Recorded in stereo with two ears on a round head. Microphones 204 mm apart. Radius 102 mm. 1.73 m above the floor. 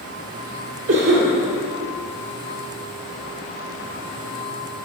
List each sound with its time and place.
0.9 s a cough: 40° right (ahead or behind), 1.3 m